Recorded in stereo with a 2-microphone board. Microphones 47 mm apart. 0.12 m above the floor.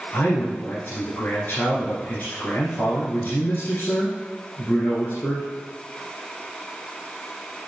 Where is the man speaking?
45° left (ahead or behind), 1.9 m.